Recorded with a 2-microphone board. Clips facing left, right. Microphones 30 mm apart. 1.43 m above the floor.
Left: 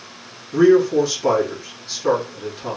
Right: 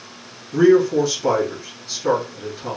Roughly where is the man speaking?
Centre.